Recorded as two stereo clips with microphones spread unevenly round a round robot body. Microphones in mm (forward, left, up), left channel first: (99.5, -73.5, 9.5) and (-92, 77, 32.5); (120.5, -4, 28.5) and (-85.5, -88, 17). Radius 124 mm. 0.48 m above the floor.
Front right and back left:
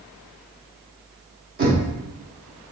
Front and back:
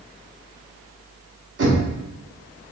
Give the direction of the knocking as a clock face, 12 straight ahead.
6 o'clock.